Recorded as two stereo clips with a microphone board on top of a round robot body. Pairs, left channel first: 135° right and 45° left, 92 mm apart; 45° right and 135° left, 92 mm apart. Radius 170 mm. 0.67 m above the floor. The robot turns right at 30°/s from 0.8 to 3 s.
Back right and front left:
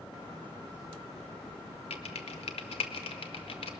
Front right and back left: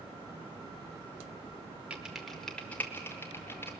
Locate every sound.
1.9 s typing on a keyboard: 145° right, 0.6 m; by 3.7 s 110° right, 0.6 m